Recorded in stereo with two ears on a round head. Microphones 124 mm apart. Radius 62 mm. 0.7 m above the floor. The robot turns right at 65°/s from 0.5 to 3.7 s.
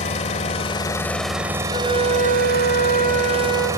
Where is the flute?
35° left, 7.5 m; by 3.7 s 165° left, 7.5 m.